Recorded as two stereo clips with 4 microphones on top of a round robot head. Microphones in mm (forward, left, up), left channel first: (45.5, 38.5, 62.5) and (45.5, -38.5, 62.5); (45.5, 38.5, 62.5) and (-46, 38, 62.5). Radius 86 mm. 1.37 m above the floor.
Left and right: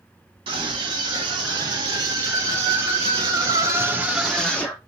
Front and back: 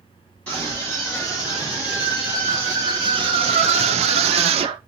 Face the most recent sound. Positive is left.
turn(degrees=165)